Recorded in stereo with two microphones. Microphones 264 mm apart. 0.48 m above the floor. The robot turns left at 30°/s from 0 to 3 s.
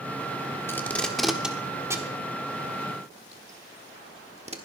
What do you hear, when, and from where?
0.7 s tape being pulled: 10° left (ahead or behind), 1.2 m; by 4.6 s 25° right (ahead or behind), 1.2 m